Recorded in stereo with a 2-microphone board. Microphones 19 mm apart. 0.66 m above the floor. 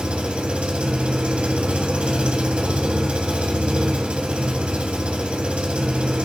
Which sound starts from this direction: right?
An engine running, at 0.0 s.